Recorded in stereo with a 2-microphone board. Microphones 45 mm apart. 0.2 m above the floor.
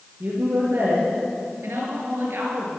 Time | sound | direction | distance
0.2 | a woman speaking | 50° right (ahead or behind) | 4 m
1.6 | a woman speaking | 65° right (ahead or behind) | 4 m